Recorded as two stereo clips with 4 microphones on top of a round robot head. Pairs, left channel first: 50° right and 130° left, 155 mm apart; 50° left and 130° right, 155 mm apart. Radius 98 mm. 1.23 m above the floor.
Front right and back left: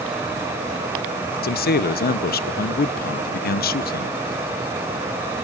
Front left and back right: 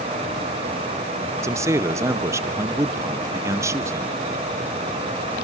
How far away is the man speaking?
About 0.7 m.